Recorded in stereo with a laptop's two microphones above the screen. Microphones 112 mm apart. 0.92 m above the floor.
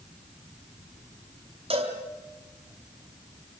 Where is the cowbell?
65° right (ahead or behind), 3.5 m.